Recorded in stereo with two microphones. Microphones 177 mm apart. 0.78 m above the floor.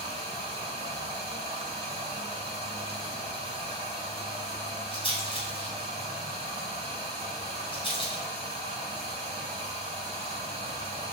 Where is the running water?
30° right (ahead or behind), 4.5 m.